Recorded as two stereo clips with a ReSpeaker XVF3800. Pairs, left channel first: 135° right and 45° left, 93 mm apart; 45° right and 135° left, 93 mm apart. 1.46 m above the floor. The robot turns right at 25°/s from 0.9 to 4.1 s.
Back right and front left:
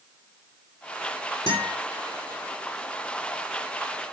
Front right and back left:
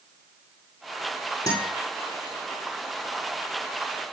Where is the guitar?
95° right, 7.5 m; by 1.8 s 85° right, 7.5 m.